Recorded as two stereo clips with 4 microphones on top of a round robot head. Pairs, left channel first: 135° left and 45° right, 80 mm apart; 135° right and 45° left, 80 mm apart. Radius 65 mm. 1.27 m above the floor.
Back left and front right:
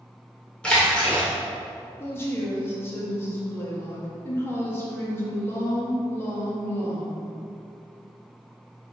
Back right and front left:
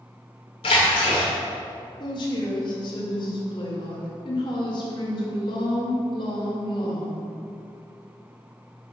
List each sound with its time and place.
0.6 s a splash: 150° right, 1.8 m
2.0 s a woman speaking: 160° right, 2.0 m